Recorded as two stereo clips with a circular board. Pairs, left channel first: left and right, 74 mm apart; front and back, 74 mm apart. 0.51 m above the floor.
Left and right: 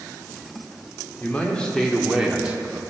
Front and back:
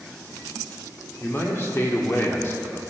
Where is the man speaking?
35° left, 1.6 m; by 2.8 s 45° right, 1.5 m.